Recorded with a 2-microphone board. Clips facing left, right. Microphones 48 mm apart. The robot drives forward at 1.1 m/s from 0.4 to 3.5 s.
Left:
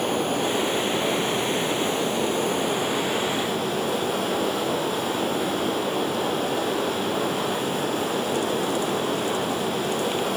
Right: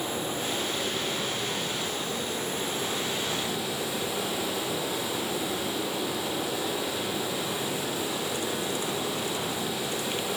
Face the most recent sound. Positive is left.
turn(degrees=50)  # may be behind; listen again after turning